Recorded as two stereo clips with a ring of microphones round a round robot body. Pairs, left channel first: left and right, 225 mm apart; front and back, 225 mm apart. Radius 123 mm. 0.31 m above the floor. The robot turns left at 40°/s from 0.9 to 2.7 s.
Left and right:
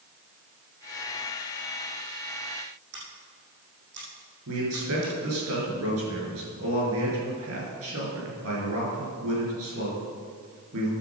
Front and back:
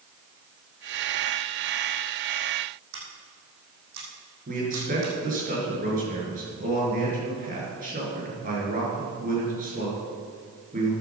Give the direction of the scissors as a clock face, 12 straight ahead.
5 o'clock.